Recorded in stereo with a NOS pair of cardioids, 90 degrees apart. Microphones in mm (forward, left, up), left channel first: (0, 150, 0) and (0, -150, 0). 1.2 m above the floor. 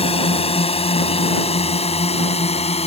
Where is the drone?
20° left.